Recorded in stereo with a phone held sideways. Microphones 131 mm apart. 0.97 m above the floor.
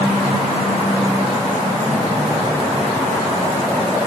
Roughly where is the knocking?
I don't hear knocking.